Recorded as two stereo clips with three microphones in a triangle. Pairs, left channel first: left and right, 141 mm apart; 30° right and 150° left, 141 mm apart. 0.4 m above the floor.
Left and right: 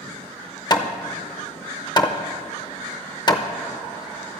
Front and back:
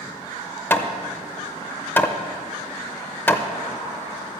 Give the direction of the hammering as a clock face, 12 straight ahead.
11 o'clock.